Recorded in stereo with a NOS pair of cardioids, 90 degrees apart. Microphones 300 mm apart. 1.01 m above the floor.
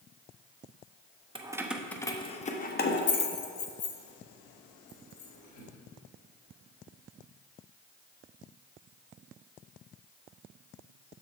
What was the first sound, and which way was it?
Keys jangling, 15° right.